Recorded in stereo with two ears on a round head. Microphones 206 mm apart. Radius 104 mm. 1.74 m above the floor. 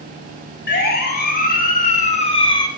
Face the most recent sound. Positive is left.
turn(degrees=15)  # may be behind; listen again after turning